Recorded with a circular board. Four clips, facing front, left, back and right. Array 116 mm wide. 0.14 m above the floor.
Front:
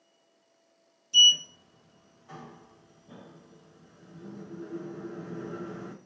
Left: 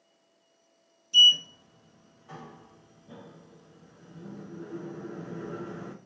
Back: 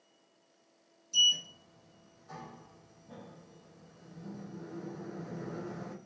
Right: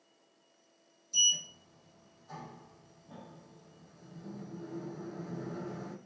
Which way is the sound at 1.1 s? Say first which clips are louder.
Left 12 dB, front 7 dB; 55° left.